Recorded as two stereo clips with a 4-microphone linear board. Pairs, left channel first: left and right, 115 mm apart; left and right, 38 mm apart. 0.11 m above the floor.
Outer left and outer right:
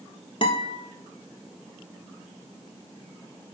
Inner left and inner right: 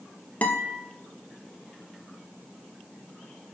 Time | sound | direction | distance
0.4 | a guitar | 45° left (ahead or behind) | 1.3 m